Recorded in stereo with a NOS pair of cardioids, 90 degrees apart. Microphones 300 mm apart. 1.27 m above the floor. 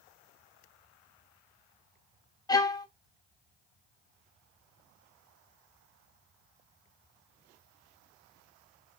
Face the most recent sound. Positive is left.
turn(degrees=15)